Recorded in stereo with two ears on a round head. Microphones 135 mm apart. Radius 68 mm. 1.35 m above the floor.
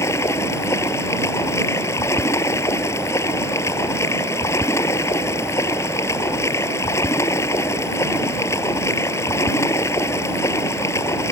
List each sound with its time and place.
0.0 s running water: 20° left (ahead or behind)